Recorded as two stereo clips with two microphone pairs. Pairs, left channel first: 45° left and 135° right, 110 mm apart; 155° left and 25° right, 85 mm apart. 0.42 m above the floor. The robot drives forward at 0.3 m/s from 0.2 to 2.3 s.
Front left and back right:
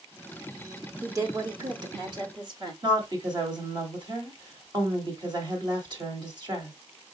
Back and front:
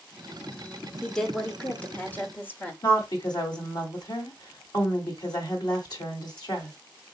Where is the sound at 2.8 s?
Straight behind, 1.6 m.